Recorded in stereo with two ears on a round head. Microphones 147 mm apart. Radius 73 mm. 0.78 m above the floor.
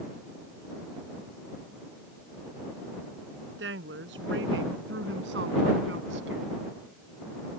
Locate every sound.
3.6 s a woman speaking: 85° right; by 6.6 s 80° right